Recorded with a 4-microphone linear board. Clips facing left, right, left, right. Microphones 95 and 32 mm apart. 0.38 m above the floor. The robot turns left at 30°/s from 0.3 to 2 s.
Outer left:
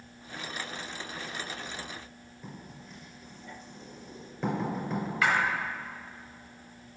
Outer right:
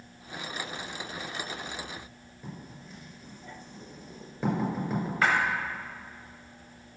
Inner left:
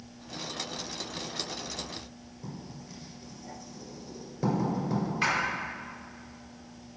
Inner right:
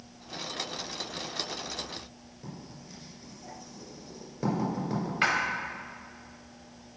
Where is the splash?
40° right (ahead or behind), 1.1 m.